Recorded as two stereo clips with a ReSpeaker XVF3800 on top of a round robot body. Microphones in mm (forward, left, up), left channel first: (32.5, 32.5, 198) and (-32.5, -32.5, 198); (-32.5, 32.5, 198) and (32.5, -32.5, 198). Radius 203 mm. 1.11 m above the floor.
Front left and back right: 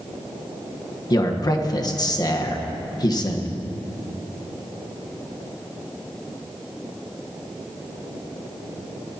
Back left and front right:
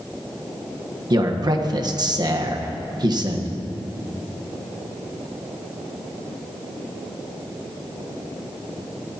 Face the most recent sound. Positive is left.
turn(degrees=0)